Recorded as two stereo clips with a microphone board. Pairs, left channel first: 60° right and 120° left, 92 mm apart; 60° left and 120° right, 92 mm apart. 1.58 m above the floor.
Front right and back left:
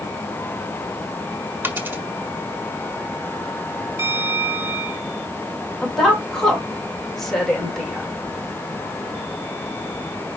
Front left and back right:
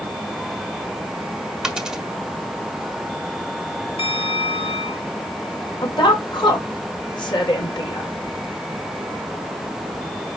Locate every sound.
1.6 s a dropped coin: 160° left, 1.4 m
4.0 s a bell: 55° left, 3 m
5.8 s a woman speaking: 25° left, 3.5 m